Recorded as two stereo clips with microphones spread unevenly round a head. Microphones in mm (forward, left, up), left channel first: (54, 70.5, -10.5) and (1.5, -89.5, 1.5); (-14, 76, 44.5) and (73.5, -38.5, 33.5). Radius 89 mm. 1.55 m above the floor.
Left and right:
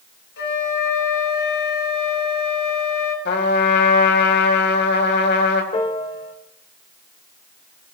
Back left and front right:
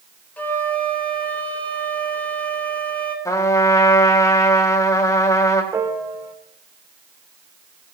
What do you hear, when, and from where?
0.4 s a flute: 50° left, 3 m
3.2 s a trumpet: 65° left, 2.5 m
5.7 s a piano: 15° left, 2 m